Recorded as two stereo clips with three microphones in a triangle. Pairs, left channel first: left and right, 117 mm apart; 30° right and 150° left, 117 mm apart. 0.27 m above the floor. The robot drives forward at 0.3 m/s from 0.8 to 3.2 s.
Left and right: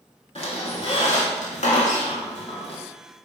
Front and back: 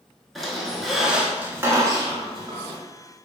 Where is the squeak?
60° left, 0.6 m; by 2.8 s 120° left, 0.6 m.